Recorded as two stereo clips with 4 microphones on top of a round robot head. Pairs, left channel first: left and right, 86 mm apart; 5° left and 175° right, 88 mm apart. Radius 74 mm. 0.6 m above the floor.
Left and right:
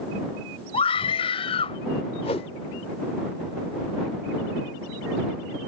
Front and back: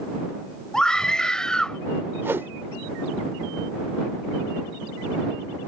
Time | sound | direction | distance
0.7 | a scream | 90° left | ?
2.2 | a whoosh | 120° left | ?